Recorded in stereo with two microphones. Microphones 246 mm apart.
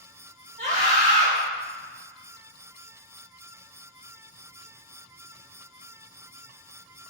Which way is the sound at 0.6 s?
35° right (ahead or behind).